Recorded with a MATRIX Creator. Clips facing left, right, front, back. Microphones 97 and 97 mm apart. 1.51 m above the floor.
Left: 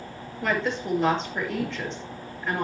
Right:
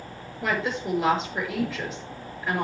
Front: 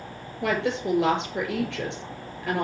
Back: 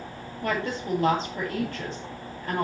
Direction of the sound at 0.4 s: 5° right.